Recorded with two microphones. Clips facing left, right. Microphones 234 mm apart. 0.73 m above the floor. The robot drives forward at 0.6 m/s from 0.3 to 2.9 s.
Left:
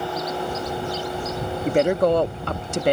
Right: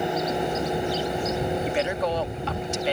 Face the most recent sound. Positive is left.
turn(degrees=55)  # may be behind; listen again after turning